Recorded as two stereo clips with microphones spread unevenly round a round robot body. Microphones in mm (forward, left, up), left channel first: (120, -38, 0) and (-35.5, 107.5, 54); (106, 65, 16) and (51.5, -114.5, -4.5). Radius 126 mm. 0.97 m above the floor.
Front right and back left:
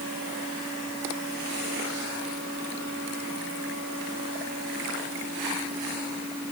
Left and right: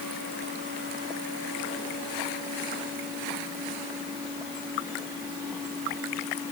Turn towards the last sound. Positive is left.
No sound to turn to.